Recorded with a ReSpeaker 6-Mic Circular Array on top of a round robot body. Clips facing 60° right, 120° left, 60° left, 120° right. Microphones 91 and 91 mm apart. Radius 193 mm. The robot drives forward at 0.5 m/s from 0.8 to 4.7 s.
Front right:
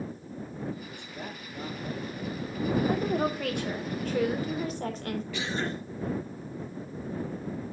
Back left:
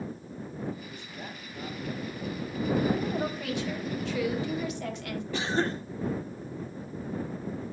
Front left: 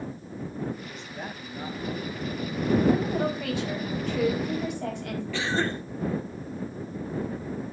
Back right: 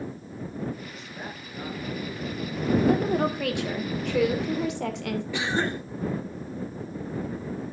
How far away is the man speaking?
About 3 m.